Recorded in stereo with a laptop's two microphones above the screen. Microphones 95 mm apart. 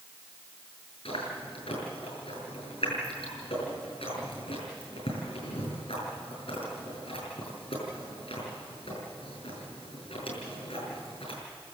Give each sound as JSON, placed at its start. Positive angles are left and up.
{"t": 1.1, "sound": "chewing", "side_deg": 80, "distance_m": 7.0}